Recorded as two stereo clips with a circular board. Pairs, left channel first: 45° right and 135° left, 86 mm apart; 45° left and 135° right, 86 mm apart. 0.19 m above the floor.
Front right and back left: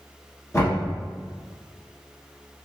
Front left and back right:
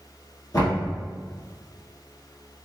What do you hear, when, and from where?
0.5 s knocking: 5° left, 1.9 m